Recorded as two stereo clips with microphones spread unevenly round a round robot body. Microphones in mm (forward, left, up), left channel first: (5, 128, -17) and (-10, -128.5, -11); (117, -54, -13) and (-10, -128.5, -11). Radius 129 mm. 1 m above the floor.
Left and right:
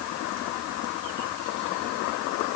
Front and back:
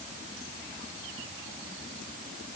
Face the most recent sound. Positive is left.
No sound to turn to.